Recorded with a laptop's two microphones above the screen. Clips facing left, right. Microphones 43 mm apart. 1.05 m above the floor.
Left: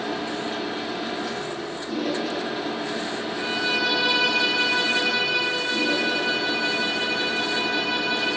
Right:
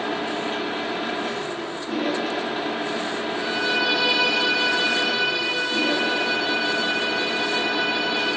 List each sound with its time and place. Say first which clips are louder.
0.0 s a machine running: right 2 dB; 40° right (ahead or behind), 0.8 m
3.3 s a violin: right 1 dB; 5° left (ahead or behind), 4 m